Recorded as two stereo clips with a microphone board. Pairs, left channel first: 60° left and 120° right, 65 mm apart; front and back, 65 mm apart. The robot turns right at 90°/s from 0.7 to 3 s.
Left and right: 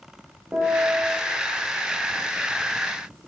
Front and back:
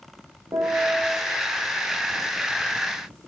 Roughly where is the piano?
Behind.